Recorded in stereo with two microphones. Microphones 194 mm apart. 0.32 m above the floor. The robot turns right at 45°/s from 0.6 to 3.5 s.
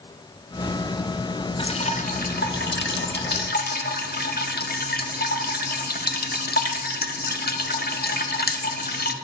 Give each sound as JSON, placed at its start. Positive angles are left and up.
{"t": 1.6, "sound": "dripping", "azimuth_deg": 30, "distance_m": 0.6}